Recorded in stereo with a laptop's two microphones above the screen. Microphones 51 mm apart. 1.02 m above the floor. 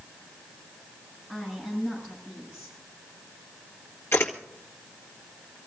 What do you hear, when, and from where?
1.3 s a woman speaking: 10° left (ahead or behind), 7.5 m
4.1 s a camera shutter: 55° left (ahead or behind), 1.8 m